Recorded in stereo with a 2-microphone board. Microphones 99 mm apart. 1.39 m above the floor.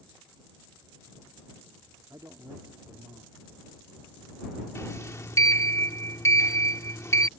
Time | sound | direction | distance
2.1 | a man speaking | 35° right (ahead or behind) | ?
4.8 | a sliding door | 30° left (ahead or behind) | ?